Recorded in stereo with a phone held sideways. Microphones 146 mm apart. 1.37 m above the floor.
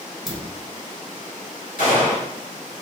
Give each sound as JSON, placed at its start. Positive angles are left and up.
{"t": 0.3, "sound": "a dropped coin", "side_deg": -5, "distance_m": 1.2}
{"t": 1.8, "sound": "a gunshot", "side_deg": 70, "distance_m": 2.0}